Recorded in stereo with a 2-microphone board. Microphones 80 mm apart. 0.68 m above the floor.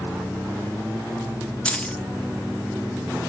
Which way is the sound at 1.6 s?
15° left (ahead or behind).